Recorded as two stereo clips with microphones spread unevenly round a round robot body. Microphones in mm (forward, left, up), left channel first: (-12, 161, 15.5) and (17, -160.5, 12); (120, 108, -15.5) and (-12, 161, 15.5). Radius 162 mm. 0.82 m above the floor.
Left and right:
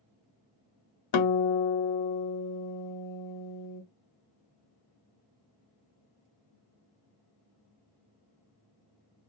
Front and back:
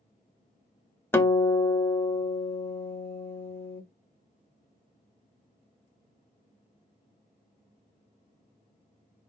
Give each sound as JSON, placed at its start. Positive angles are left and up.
{"t": 1.1, "sound": "a guitar", "azimuth_deg": 55, "distance_m": 0.7}